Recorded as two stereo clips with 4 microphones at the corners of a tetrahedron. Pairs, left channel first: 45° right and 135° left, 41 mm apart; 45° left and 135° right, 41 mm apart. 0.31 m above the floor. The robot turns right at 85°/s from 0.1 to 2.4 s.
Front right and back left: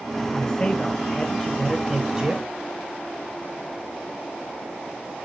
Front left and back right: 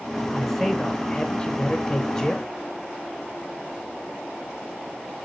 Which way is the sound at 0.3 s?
60° right.